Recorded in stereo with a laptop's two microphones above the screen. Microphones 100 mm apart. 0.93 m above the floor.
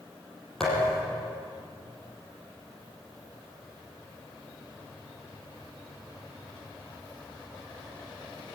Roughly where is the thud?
Centre.